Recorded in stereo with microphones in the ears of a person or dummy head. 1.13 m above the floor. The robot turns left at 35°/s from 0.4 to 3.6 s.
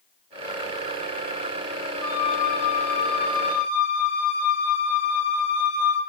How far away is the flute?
About 5.5 m.